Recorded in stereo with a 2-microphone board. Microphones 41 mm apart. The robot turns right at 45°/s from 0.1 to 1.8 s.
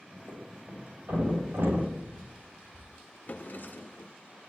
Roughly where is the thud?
Right.